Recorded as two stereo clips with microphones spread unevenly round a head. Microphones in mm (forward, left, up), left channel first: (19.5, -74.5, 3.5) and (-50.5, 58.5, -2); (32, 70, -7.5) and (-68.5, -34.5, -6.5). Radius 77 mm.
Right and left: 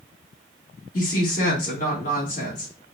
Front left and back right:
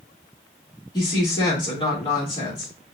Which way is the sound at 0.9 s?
20° right.